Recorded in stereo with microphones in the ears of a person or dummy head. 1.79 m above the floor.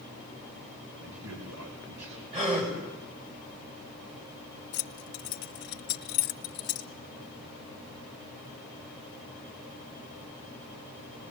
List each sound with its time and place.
1.0 s a man speaking: 85° right, 3.5 m
2.3 s a gasp: 30° right (ahead or behind), 8 m
4.7 s keys jangling: 55° left (ahead or behind), 1.2 m